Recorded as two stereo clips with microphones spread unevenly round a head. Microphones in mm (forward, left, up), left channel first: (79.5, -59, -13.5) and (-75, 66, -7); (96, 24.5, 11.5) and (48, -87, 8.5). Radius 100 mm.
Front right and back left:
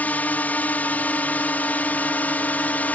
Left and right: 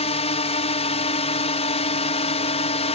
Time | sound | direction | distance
0.0 | a drone | 45° left | ?